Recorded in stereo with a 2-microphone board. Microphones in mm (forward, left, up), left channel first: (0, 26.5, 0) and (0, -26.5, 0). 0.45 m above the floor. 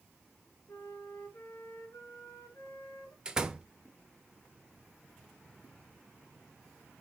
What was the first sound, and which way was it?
A flute, 85° left.